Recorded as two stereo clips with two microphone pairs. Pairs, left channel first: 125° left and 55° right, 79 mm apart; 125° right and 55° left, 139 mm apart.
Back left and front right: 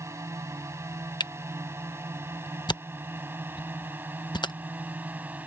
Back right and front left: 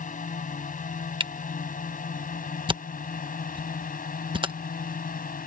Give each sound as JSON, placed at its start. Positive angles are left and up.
{"t": 0.0, "sound": "a drone", "azimuth_deg": -105}
{"t": 1.2, "sound": "a camera shutter", "azimuth_deg": 105}